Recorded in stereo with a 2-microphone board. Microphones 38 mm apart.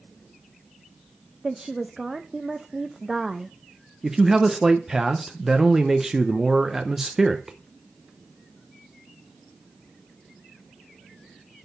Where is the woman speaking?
10° right (ahead or behind), 0.5 m.